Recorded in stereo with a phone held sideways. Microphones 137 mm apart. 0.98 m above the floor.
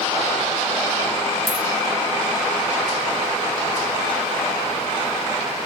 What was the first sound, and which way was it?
A dropped coin, 45° left (ahead or behind).